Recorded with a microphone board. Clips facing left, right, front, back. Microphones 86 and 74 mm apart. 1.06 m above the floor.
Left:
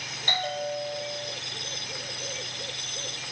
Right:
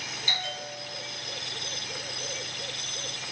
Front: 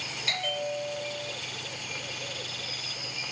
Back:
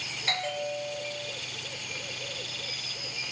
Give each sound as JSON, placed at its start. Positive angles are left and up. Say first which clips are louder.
{"t": 0.3, "sound": "a bell", "louder": "left 8 dB, even", "azimuth_deg": 125, "distance_m": 0.8}